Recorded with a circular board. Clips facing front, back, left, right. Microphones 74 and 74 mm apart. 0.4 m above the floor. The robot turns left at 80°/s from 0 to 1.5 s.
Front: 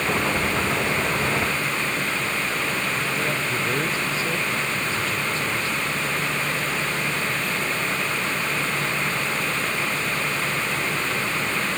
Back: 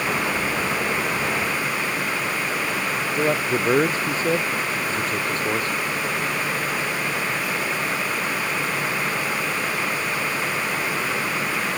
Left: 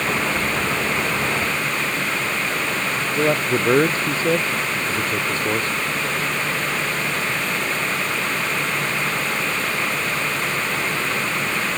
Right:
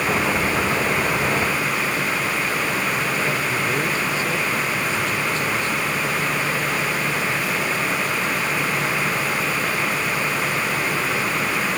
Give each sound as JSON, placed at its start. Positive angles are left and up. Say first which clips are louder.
{"t": 3.1, "sound": "a man speaking", "louder": "back 4 dB, left 3 dB", "azimuth_deg": 130}